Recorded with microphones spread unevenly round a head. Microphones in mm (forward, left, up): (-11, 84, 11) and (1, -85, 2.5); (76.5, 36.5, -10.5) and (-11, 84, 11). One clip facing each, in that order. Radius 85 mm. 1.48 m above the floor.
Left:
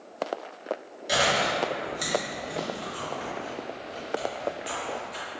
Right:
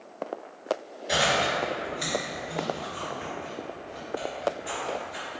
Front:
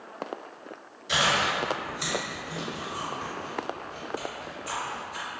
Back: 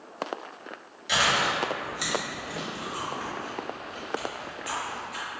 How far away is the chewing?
About 1.7 m.